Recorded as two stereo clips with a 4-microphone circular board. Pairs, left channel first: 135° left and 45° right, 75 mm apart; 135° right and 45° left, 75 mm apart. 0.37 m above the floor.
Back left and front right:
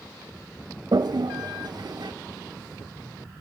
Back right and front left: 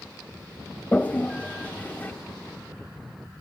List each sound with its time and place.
0.9 s a toilet flushing: 70° right, 0.5 m